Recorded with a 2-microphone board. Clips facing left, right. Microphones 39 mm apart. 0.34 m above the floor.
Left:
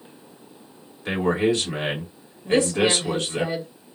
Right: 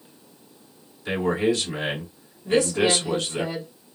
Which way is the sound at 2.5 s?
30° left (ahead or behind).